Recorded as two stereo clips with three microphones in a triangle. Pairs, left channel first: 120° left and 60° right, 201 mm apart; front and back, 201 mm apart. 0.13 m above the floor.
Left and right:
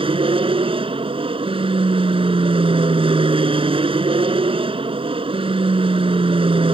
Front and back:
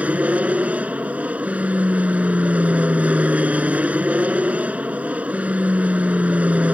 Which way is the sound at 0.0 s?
100° right.